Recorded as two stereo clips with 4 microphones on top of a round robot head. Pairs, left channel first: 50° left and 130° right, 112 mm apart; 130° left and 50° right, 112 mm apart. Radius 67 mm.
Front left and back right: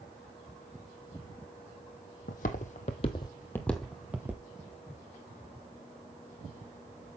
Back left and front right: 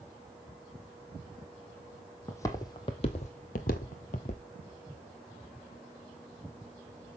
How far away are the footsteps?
About 1.3 m.